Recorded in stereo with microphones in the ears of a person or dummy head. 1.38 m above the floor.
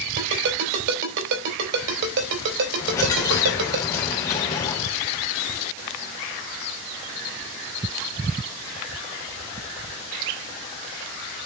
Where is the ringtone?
60° right (ahead or behind), 3.5 m.